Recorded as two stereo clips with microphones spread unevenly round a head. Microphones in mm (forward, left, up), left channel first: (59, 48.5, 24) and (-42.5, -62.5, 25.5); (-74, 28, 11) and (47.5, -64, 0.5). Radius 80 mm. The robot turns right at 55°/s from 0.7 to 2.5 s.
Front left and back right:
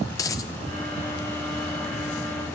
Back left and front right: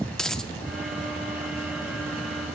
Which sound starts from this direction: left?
A dropped coin, at 0.1 s.